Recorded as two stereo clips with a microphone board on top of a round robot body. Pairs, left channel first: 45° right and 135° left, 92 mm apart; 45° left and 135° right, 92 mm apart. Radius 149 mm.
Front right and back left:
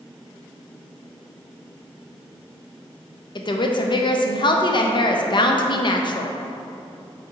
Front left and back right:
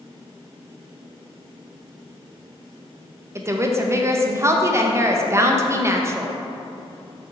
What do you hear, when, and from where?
3.4 s a woman speaking: 75° right, 0.5 m